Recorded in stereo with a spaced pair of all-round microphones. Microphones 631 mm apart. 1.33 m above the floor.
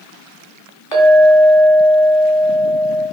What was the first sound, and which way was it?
A clink, 40° left (ahead or behind).